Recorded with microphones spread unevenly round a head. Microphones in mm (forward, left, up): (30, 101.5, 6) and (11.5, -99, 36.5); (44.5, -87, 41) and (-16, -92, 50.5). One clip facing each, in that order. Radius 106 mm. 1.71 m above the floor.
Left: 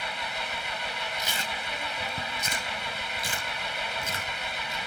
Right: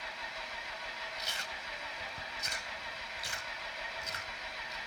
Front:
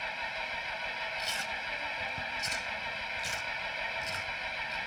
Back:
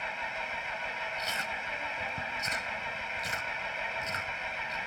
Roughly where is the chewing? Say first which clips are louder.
Left 10 dB, back 2 dB; left.